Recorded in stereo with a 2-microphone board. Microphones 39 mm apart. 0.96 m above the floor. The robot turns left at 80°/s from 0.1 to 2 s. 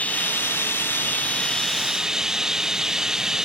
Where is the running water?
140° left; by 3.4 s 15° right.